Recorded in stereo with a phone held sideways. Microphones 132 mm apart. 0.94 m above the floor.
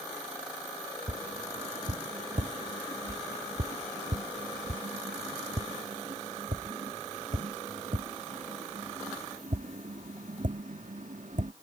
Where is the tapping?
75° right (ahead or behind).